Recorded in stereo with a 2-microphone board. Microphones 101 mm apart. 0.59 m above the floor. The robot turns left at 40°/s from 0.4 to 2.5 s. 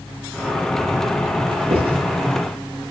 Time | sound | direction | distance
1.7 | writing | 65° right (ahead or behind) | 6 m